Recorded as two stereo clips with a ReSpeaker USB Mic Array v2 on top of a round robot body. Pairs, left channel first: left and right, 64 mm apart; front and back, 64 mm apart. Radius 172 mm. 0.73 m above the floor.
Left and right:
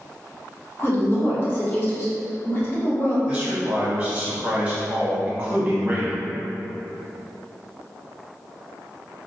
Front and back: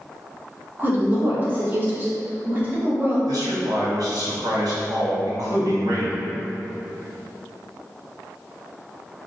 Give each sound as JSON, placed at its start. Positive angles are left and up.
{"t": 0.8, "sound": "a woman speaking", "azimuth_deg": 130, "distance_m": 1.4}
{"t": 3.3, "sound": "a man speaking", "azimuth_deg": -165, "distance_m": 1.5}